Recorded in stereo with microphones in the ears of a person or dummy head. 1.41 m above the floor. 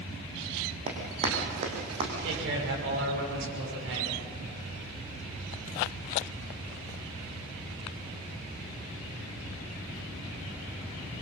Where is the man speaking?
75° right (ahead or behind), 6 m.